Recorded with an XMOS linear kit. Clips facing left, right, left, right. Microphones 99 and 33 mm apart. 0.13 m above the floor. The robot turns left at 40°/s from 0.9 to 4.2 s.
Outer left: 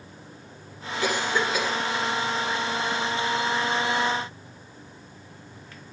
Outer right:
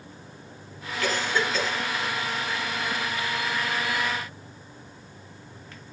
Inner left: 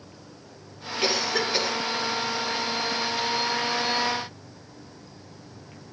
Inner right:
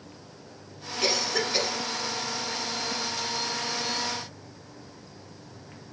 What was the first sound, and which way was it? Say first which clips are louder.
A cough: outer left 1 dB, inner left 2 dB; 20° left (ahead or behind).